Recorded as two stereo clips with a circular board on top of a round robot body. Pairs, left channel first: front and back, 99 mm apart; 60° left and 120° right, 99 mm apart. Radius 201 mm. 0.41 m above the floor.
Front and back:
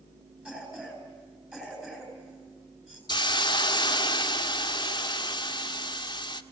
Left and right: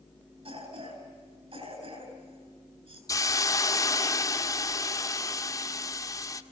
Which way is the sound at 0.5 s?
100° right.